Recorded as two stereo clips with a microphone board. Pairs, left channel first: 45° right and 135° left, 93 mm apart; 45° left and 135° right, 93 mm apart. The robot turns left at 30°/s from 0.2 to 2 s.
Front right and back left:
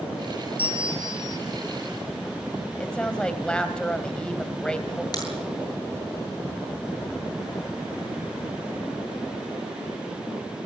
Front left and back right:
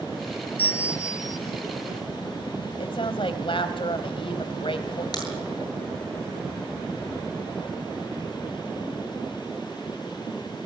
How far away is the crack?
About 8.5 m.